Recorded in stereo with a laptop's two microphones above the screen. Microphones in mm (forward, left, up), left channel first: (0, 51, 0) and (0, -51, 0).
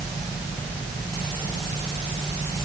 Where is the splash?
I don't hear a splash.